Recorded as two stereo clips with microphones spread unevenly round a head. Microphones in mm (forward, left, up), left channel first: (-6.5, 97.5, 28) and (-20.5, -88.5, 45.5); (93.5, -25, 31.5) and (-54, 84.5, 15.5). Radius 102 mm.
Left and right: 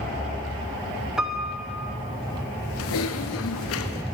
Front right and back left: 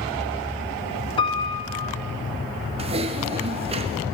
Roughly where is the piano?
Ahead.